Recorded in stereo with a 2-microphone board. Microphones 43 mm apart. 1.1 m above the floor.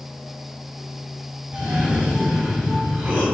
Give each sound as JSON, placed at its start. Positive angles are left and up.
{"t": 1.5, "sound": "a cough", "side_deg": -35, "distance_m": 3.5}